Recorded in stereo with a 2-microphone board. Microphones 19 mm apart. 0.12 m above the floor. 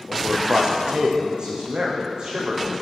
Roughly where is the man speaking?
Right.